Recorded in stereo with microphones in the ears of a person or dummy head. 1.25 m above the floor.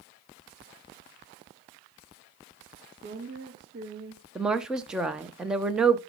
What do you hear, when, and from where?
2.9 s a woman speaking: 55° right (ahead or behind), 1.7 m
4.3 s a woman speaking: 5° right (ahead or behind), 0.6 m